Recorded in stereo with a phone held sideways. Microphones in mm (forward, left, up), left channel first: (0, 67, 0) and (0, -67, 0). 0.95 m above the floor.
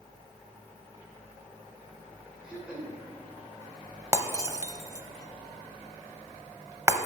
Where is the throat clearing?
5° right (ahead or behind), 3 m.